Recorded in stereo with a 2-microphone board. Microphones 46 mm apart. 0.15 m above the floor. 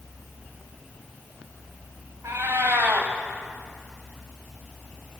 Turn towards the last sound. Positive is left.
turn(degrees=-70)  # may be behind; listen again after turning